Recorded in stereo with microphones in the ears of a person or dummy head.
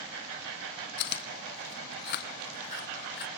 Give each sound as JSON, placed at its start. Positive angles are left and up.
{"t": 1.0, "sound": "chewing", "side_deg": 55, "distance_m": 2.0}